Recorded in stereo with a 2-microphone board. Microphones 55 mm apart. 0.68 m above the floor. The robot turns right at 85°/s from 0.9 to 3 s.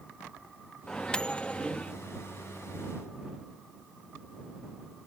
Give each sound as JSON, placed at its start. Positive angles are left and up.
{"t": 0.9, "sound": "a microwave", "side_deg": 15}